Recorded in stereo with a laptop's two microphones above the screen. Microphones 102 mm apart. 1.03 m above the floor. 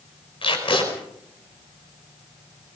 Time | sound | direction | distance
0.4 | tape being pulled | 60° left (ahead or behind) | 5 m